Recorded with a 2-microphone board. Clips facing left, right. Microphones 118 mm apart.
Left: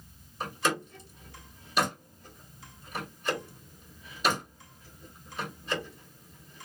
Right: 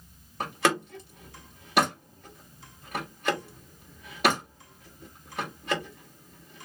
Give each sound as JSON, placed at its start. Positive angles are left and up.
{"t": 0.4, "sound": "a door slam", "side_deg": -70, "distance_m": 1.9}